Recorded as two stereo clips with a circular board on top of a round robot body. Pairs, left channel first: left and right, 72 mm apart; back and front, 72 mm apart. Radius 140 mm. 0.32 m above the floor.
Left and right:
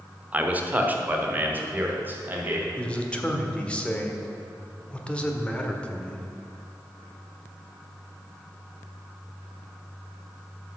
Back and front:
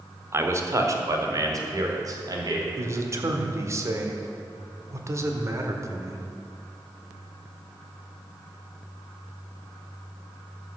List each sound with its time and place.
0.3 s a man speaking: 30° right, 1.3 m
2.8 s a man speaking: 20° left, 1.6 m